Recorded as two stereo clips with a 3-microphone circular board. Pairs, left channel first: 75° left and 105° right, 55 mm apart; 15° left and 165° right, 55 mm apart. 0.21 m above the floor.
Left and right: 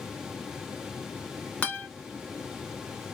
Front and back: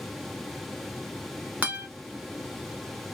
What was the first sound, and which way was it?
A guitar, 135° left.